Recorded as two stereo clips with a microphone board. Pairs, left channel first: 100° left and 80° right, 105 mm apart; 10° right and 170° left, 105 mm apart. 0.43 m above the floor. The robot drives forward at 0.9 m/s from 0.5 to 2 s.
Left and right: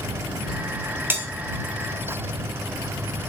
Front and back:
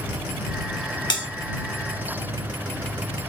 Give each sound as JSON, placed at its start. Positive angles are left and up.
{"t": 1.1, "sound": "a bell", "azimuth_deg": -20, "distance_m": 1.7}